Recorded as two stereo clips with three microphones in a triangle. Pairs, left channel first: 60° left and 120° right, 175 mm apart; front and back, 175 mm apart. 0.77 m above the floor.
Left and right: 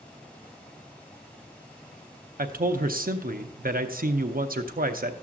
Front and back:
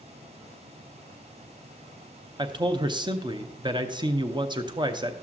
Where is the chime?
I don't hear a chime.